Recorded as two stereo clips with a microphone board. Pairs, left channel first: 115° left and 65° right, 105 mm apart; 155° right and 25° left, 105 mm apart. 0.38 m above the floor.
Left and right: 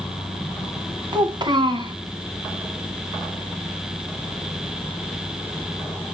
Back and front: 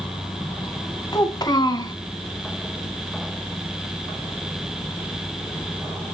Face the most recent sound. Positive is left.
turn(degrees=-110)